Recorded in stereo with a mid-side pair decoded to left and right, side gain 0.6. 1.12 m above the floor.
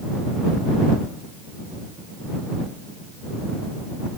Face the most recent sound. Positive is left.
No sound to turn to.